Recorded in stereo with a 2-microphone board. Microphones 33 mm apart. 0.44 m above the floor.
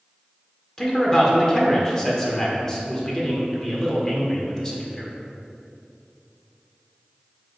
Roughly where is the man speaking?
Centre.